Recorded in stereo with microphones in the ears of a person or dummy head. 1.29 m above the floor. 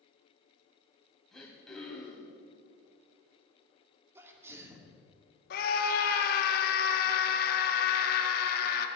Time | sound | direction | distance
1.3 | throat clearing | 5° left (ahead or behind) | 3 m
4.2 | a sneeze | 15° right (ahead or behind) | 2.5 m
5.5 | a scream | 60° left (ahead or behind) | 1.9 m